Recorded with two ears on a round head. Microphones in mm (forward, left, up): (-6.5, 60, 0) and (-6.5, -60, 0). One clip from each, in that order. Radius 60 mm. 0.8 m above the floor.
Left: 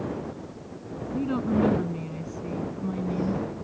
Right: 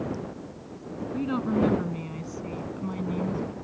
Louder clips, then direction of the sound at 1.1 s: Left 1 dB; 30° right (ahead or behind).